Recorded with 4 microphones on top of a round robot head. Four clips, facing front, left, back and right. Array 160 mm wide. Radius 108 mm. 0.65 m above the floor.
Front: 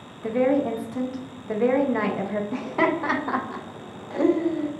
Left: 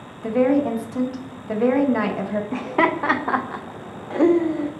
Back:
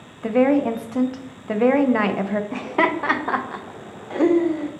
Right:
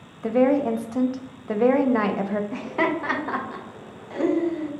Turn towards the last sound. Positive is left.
turn(degrees=120)